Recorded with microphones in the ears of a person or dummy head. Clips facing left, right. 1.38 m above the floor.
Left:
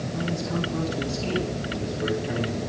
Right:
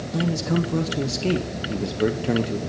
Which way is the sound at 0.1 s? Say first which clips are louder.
Right 6 dB; 70° right (ahead or behind).